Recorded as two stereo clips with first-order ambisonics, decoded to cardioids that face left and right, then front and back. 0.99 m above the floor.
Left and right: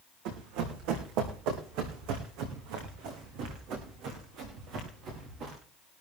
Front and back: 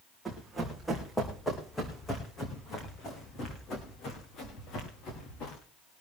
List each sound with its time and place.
0.2 s running footsteps: 95° right, 5 m; by 5.6 s 45° right, 6.5 m